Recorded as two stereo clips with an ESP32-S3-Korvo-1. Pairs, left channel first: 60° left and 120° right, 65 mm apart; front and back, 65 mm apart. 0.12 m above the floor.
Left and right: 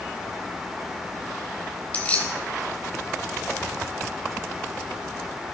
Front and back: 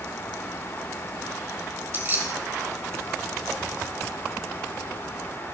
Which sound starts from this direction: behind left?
Keys jangling, at 1.9 s.